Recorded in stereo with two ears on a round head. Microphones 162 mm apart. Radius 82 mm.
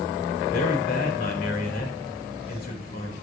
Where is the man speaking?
55° left (ahead or behind), 4 m.